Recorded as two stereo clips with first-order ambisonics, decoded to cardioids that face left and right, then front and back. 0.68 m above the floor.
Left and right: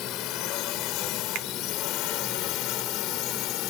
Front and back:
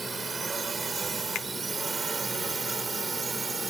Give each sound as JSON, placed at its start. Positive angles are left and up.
{"t": 0.0, "sound": "a drone", "azimuth_deg": 105}
{"t": 1.4, "sound": "a finger snap", "azimuth_deg": -45}